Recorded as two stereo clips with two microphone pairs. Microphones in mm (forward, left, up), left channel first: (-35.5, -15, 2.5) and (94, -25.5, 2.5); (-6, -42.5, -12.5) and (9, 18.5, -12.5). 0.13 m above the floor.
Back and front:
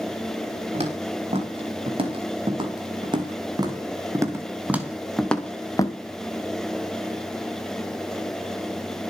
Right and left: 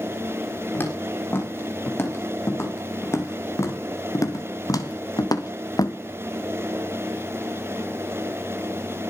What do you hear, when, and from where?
0.7 s footsteps: 45° right, 8 m; by 6.0 s 125° right, 2 m